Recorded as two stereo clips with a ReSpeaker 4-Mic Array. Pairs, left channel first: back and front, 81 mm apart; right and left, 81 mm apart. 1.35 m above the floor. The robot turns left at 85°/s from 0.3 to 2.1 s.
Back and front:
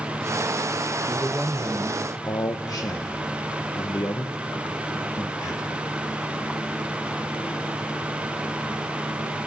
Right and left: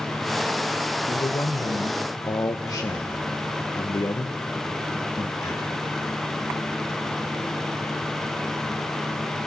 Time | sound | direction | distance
1.1 | a man speaking | 50° right | 0.8 m